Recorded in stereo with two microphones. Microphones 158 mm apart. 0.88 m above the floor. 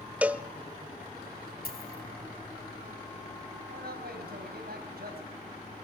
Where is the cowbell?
10° right (ahead or behind), 0.6 m.